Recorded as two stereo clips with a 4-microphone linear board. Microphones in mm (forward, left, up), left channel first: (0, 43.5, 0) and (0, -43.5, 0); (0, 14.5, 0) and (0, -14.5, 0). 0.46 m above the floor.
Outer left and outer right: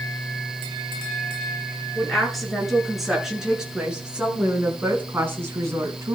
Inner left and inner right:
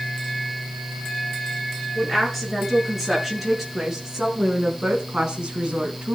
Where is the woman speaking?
5° left (ahead or behind), 6.5 m; by 6.2 s 35° right (ahead or behind), 4 m.